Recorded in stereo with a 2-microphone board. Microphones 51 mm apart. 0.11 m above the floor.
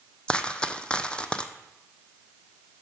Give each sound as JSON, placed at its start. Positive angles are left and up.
{"t": 0.3, "sound": "a dropped coin", "side_deg": 20, "distance_m": 0.6}